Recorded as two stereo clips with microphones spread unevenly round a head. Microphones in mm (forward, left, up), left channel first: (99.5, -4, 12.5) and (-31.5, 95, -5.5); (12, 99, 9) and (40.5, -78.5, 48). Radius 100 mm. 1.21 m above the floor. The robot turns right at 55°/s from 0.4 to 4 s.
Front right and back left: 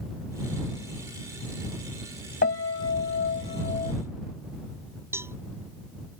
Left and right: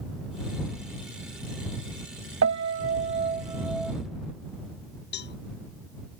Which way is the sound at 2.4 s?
75° right.